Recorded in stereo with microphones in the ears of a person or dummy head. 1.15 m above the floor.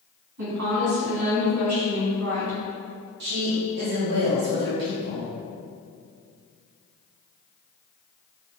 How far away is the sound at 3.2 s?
About 0.8 m.